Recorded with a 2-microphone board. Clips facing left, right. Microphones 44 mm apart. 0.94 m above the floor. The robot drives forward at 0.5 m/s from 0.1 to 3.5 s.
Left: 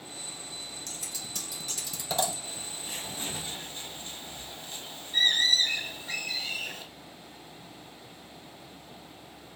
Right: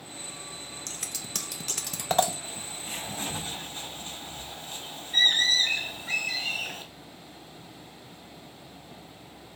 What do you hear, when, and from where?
0.9 s scissors: 55° right (ahead or behind), 0.7 m; by 2.3 s 50° right (ahead or behind), 0.7 m
2.4 s a bird: 35° right (ahead or behind), 3 m; by 6.8 s 45° right (ahead or behind), 2.5 m